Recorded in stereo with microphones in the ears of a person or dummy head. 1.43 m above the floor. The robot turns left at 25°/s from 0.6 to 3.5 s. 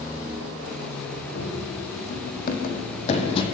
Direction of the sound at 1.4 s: 70° left (ahead or behind).